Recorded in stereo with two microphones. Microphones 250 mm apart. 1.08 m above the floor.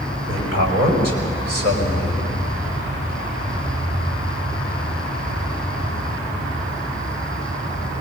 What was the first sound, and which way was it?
A man speaking, 70° right (ahead or behind).